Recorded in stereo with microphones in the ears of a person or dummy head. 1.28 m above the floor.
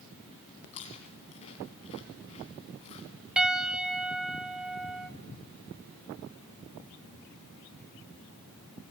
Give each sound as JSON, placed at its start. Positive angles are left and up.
{"t": 0.7, "sound": "chewing", "side_deg": 35, "distance_m": 1.7}
{"t": 3.4, "sound": "a piano", "side_deg": -5, "distance_m": 0.7}